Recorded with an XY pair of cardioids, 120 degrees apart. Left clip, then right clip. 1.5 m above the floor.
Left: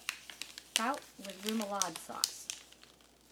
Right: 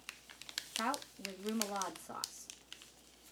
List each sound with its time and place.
0.8 s a woman speaking: 20° left, 0.9 m